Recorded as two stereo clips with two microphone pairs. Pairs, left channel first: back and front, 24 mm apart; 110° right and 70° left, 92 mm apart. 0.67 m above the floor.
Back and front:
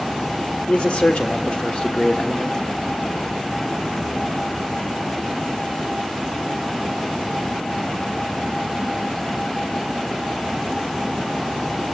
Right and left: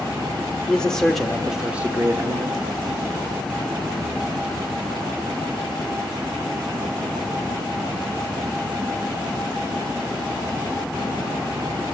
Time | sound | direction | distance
0.7 | a man speaking | 170° left | 1.5 m